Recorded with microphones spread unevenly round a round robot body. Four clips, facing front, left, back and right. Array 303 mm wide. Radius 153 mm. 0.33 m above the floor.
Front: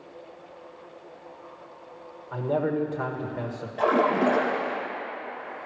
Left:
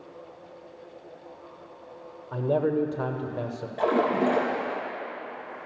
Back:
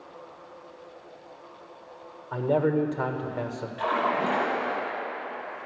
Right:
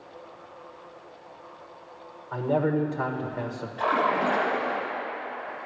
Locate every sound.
2.3 s a man speaking: 130° left, 1.4 m
3.8 s a splash: 60° left, 3.5 m